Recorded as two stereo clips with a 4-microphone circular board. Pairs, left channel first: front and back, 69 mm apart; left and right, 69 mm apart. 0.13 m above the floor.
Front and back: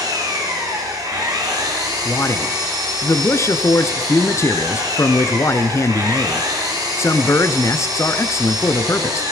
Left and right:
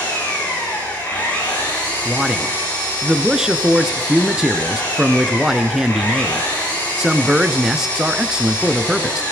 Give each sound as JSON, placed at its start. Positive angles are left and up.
{"t": 0.0, "sound": "an engine running", "azimuth_deg": 160, "distance_m": 9.0}
{"t": 2.0, "sound": "a man speaking", "azimuth_deg": -10, "distance_m": 1.5}